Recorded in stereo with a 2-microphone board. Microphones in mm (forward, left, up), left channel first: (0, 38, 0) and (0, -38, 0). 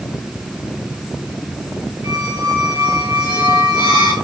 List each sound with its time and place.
2.0 s a squeak: 65° right (ahead or behind), 3.5 m